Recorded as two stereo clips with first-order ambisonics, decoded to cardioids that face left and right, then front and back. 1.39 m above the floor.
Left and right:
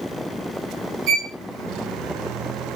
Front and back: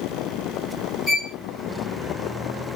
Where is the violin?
80° right, 1.1 m.